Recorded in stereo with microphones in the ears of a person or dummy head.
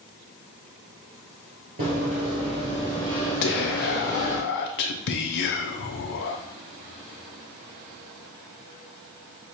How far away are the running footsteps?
About 1.7 m.